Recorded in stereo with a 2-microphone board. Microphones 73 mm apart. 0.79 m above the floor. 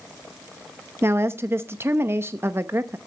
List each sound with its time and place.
1.0 s a woman speaking: 35° right (ahead or behind), 0.7 m